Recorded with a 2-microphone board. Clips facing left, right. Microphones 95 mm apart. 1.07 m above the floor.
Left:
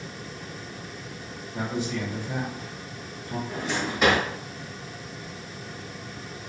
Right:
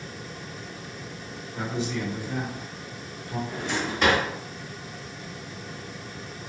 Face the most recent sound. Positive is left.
turn(degrees=5)  # may be behind; listen again after turning